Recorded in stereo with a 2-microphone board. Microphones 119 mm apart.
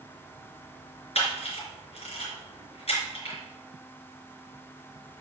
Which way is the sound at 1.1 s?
60° left (ahead or behind).